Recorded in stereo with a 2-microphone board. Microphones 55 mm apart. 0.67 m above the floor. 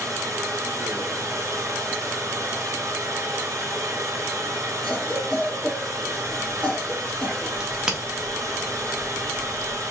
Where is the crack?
10° right (ahead or behind), 1.1 m.